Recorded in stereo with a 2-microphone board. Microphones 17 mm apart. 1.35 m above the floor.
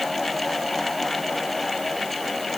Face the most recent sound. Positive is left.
No sound to turn to.